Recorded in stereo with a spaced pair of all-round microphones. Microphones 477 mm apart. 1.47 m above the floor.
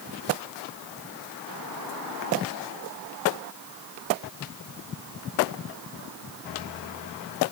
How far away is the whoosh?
I don't hear a whoosh.